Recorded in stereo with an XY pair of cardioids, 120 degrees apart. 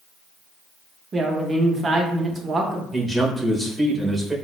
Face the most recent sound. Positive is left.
turn(degrees=0)